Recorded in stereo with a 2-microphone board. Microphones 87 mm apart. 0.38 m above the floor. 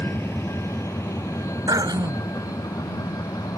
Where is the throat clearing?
55° right (ahead or behind).